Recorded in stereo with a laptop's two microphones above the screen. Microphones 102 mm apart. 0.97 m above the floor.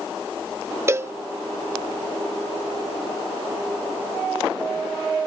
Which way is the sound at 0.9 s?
25° right (ahead or behind).